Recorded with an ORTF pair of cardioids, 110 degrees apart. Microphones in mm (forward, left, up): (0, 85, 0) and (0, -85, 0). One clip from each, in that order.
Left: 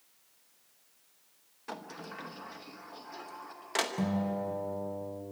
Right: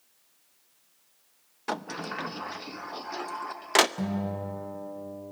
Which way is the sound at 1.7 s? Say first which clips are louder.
Right 10 dB; 45° right.